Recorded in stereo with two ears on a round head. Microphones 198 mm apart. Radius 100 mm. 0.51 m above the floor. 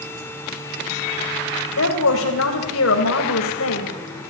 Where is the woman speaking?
65° left (ahead or behind), 3 m.